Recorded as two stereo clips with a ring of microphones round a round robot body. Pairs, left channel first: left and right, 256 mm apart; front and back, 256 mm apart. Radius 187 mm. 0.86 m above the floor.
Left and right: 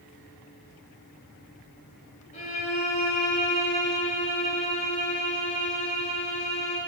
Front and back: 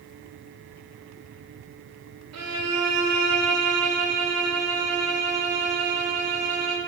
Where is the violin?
160° left, 1.6 m.